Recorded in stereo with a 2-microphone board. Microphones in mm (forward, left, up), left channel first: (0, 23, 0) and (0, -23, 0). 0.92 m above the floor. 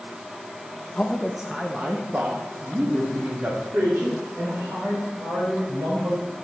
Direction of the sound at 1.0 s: 20° left (ahead or behind).